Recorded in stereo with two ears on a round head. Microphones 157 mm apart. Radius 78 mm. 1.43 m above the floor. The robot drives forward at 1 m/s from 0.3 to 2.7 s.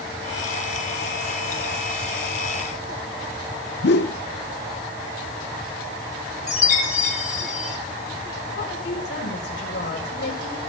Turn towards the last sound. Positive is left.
turn(degrees=70)  # may be behind; listen again after turning